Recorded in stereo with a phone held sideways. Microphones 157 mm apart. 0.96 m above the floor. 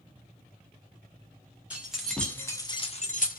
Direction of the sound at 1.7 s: 10° right (ahead or behind).